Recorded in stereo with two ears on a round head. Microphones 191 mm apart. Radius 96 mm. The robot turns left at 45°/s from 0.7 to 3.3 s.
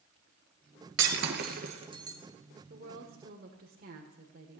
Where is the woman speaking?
45° right (ahead or behind), 1.8 m.